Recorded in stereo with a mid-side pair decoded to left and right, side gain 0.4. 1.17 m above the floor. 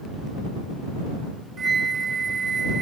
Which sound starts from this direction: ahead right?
A flute, at 1.6 s.